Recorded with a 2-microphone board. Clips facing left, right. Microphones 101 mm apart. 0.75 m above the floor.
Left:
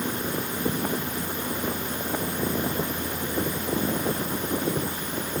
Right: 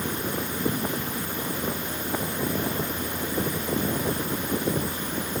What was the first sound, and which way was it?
Only background noise.